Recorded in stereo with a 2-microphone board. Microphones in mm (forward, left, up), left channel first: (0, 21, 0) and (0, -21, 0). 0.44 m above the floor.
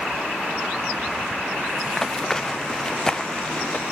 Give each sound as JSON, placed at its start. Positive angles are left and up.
{"t": 1.9, "sound": "running footsteps", "side_deg": 10}